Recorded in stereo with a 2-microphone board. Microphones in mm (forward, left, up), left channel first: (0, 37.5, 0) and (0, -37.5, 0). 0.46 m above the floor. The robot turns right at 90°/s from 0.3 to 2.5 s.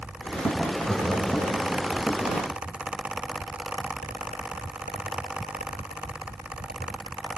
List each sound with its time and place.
0.8 s laughter: centre (ahead or behind), 2 m; by 1.6 s 65° left (ahead or behind), 2 m